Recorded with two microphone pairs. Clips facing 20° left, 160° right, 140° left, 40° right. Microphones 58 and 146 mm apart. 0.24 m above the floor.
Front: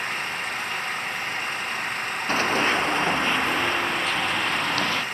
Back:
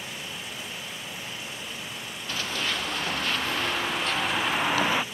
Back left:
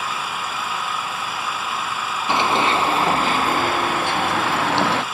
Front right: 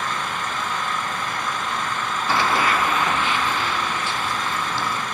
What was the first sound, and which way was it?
An engine running, 55° left.